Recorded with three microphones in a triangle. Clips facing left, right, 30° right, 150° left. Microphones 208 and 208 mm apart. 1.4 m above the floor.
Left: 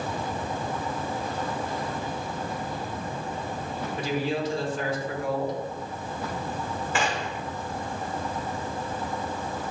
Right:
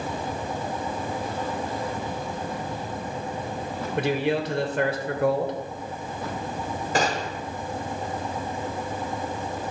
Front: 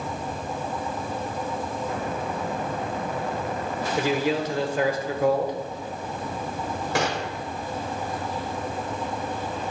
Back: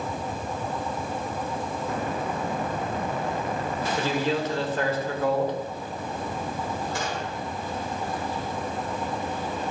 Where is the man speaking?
110° right, 1.2 m.